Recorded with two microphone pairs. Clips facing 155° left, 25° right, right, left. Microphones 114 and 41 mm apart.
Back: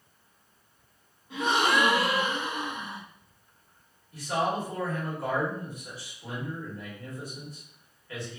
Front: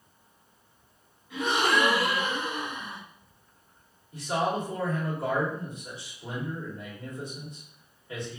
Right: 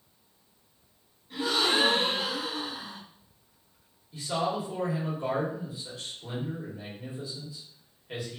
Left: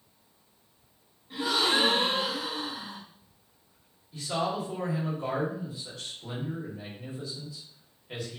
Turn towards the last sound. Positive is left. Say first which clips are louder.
# even, right 1 dB
turn(degrees=-25)